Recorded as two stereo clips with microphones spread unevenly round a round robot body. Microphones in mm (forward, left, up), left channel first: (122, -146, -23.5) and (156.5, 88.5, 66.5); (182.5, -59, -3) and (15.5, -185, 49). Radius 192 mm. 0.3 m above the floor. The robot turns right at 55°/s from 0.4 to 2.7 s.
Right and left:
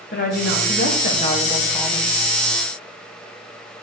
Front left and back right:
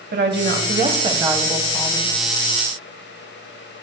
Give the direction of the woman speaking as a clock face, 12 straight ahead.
4 o'clock.